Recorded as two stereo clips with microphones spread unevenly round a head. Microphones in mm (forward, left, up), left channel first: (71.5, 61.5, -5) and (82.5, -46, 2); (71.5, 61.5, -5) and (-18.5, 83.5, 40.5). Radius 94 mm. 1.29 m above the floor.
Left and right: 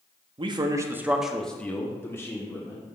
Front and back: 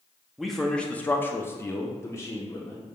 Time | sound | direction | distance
0.4 | a man speaking | 75° right | 0.5 m